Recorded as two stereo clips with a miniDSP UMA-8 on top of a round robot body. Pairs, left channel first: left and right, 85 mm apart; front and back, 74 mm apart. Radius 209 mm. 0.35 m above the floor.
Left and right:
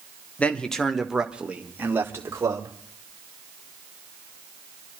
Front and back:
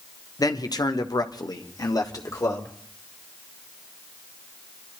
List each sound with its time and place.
0.4 s a man speaking: 20° left, 1.6 m; by 2.7 s 40° right, 2.5 m